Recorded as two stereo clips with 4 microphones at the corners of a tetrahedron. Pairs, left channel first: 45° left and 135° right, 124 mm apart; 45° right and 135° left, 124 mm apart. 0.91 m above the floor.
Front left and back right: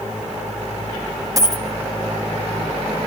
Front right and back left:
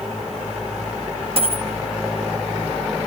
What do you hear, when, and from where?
1.4 s a dropped coin: 165° left, 1.8 m